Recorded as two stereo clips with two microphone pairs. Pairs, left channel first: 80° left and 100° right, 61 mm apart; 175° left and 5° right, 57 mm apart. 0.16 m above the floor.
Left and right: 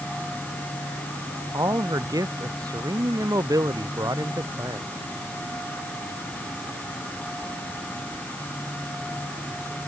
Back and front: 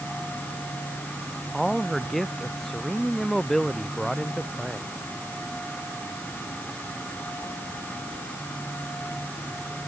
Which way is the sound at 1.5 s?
95° right.